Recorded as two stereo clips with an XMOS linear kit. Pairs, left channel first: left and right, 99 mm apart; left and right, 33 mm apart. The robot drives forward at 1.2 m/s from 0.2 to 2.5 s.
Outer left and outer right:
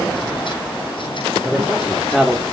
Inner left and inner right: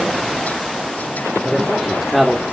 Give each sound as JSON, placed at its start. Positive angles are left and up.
{"t": 1.4, "sound": "a man speaking", "side_deg": 0, "distance_m": 3.5}